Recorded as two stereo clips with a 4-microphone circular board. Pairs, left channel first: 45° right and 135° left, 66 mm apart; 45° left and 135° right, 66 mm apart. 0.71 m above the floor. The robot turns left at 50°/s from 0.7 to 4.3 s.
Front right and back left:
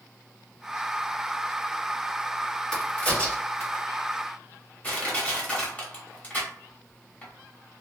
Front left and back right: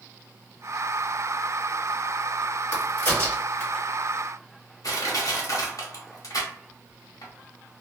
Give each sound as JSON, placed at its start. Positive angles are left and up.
{"t": 2.7, "sound": "a crack", "azimuth_deg": 30, "distance_m": 1.7}
{"t": 4.8, "sound": "crushing", "azimuth_deg": 20, "distance_m": 1.0}